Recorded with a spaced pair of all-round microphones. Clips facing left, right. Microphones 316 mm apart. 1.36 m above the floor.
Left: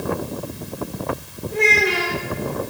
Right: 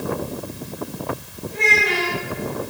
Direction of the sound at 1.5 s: 80° left.